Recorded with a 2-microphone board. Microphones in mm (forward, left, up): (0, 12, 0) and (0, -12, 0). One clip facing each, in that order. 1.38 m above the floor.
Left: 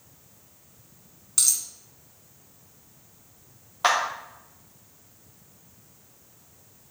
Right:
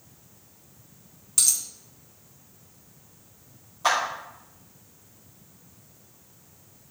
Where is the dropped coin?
5° left (ahead or behind), 1.4 m.